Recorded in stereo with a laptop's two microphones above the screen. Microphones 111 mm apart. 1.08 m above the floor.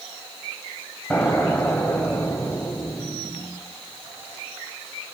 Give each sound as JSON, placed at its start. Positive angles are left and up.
{"t": 1.1, "sound": "an explosion", "side_deg": 15, "distance_m": 1.2}